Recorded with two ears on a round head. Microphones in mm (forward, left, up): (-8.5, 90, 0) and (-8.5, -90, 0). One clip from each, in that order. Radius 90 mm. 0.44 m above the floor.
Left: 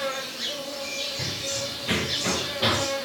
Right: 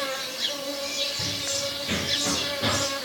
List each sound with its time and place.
0.0 s an insect: 20° right (ahead or behind), 1.0 m
1.2 s running footsteps: 20° left (ahead or behind), 2.5 m; by 2.9 s 55° left (ahead or behind), 3 m